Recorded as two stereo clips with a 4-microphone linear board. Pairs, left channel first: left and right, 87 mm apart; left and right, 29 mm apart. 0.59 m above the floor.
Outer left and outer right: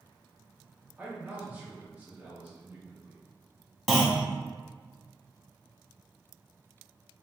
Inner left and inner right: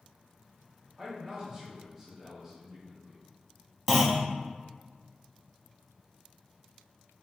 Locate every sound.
1.0 s a man speaking: 20° right (ahead or behind), 1.3 m
3.9 s a clunk: centre (ahead or behind), 1.1 m